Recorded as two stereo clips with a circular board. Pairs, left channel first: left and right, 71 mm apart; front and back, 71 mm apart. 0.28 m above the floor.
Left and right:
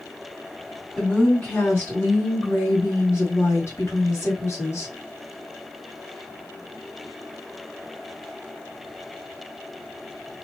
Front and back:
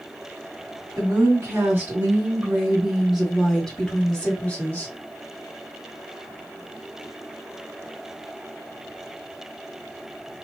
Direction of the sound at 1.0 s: 155° left.